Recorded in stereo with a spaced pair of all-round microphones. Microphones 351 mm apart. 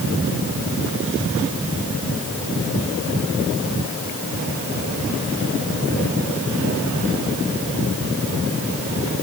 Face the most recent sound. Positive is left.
No sound to turn to.